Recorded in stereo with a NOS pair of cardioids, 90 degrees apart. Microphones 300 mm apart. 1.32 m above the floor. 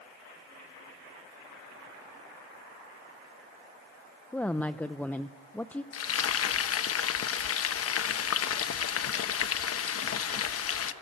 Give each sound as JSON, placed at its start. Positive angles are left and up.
{"t": 4.3, "sound": "a woman speaking", "azimuth_deg": 5, "distance_m": 0.7}
{"t": 5.9, "sound": "frying", "azimuth_deg": 50, "distance_m": 1.2}